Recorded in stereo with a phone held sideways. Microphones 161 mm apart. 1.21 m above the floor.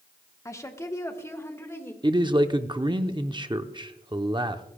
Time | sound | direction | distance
0.5 | a woman speaking | 20° left (ahead or behind) | 1.1 m
2.0 | a man speaking | 30° right (ahead or behind) | 0.7 m